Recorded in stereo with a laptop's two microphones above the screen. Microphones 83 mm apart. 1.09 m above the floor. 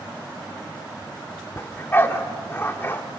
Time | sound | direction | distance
1.6 | a dog barking | 25° left (ahead or behind) | 1.2 m